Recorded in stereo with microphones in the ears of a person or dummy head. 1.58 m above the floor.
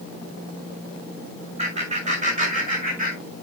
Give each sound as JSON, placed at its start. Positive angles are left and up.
{"t": 1.6, "sound": "laughter", "side_deg": -35, "distance_m": 6.5}